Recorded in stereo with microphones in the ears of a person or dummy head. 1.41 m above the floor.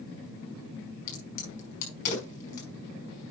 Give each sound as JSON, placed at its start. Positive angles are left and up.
{"t": 1.1, "sound": "a crack", "side_deg": 50, "distance_m": 4.5}